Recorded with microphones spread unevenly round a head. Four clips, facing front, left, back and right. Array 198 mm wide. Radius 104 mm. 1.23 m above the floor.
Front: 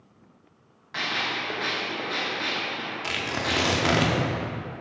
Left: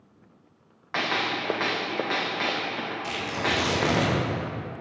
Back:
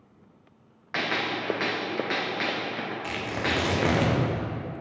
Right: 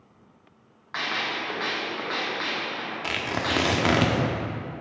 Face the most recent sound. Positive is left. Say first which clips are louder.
# right 1 dB, front 1 dB
turn(degrees=-55)